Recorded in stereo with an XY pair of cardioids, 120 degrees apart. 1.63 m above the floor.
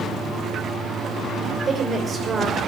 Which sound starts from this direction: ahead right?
A woman speaking, at 1.7 s.